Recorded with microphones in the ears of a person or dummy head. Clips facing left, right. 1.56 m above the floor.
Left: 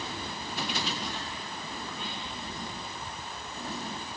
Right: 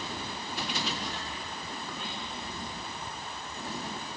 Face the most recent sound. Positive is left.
No sound to turn to.